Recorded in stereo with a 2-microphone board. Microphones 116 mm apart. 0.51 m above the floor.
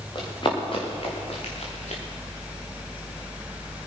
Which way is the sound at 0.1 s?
40° left (ahead or behind).